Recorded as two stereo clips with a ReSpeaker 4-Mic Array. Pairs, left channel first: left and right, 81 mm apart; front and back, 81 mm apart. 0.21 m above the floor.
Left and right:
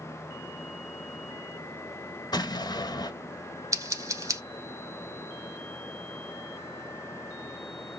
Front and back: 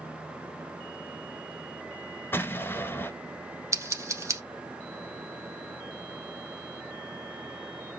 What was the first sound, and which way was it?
An explosion, 60° left.